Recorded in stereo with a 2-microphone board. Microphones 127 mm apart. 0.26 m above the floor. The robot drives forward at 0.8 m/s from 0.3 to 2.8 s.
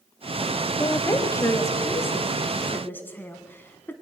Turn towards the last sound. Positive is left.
turn(degrees=15)  # may be behind; listen again after turning